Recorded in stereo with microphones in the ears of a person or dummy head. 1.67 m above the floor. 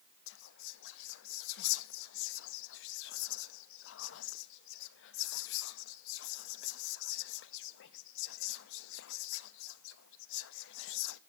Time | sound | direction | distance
0.3 | whispering | 70° left (ahead or behind) | 0.6 m